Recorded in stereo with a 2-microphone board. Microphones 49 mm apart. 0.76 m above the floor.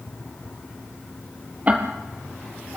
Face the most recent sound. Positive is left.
turn(degrees=-35)  # may be behind; listen again after turning